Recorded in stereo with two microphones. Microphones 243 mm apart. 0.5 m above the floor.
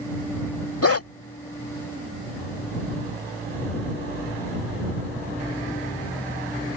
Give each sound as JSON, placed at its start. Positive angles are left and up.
{"t": 0.8, "sound": "a dog barking", "side_deg": 75}